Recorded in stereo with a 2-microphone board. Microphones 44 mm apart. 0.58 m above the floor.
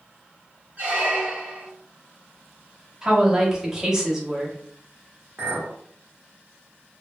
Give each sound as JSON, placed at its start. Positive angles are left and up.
{"t": 0.8, "sound": "a squeak", "side_deg": -35, "distance_m": 1.0}
{"t": 3.0, "sound": "a woman speaking", "side_deg": -10, "distance_m": 0.8}
{"t": 5.4, "sound": "a clink", "side_deg": -50, "distance_m": 1.2}